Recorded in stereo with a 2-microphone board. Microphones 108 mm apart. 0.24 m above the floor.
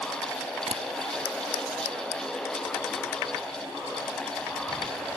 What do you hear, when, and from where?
0.7 s tapping: 85° right, 1.2 m